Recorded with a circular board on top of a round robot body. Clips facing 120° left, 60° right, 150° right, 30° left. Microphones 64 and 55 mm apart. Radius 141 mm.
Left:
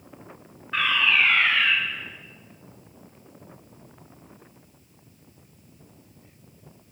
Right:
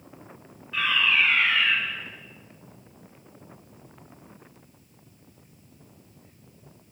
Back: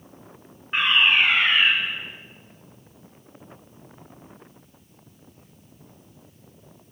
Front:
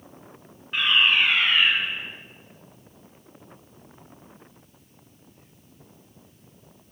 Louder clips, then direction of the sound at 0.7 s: Left 1 dB, back 1 dB; 155° left.